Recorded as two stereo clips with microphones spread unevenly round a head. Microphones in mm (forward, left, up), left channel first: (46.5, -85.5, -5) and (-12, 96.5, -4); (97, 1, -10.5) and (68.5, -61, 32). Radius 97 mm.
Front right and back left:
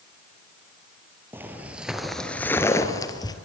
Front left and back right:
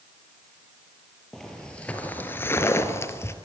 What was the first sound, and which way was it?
Footsteps, 175° right.